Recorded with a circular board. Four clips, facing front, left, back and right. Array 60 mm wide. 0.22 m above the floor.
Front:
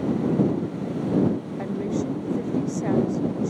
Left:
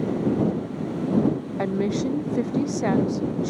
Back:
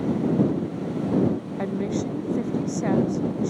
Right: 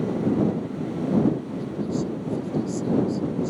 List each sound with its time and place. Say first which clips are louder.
1.6 s a woman speaking: left 8 dB, back 1 dB; 100° left